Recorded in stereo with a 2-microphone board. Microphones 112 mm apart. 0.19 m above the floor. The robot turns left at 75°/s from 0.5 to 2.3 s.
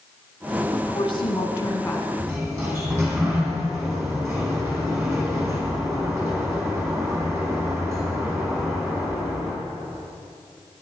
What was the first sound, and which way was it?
A woman speaking, 110° left.